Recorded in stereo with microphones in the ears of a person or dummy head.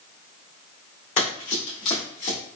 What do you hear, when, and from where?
1.2 s running footsteps: 40° left (ahead or behind), 1.8 m; by 2.4 s 45° left (ahead or behind), 1.5 m